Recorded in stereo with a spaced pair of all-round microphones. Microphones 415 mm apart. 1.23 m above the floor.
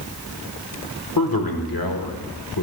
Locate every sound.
1.2 s a man speaking: 55° left (ahead or behind), 1.4 m